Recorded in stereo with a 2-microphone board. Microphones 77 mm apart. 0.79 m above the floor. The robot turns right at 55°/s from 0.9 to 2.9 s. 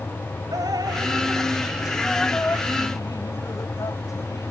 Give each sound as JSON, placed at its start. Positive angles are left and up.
{"t": 0.5, "sound": "dripping", "azimuth_deg": -60}